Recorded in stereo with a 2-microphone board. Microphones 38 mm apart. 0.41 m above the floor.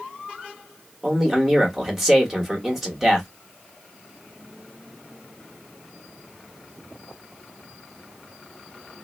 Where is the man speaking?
5° right (ahead or behind), 1.3 m.